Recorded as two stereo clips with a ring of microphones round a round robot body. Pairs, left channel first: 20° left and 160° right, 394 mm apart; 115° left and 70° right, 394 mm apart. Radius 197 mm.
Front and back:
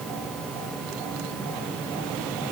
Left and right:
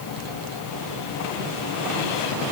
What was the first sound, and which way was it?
Only background noise.